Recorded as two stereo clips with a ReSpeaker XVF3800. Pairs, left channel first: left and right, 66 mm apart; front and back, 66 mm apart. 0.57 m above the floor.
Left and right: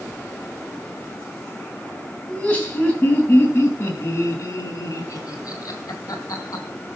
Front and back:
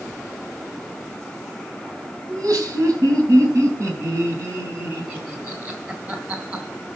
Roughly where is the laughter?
Behind.